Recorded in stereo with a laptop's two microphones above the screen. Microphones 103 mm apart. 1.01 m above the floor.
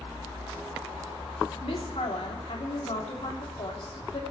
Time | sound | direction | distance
1.6 | a woman speaking | 70° left (ahead or behind) | 2.5 m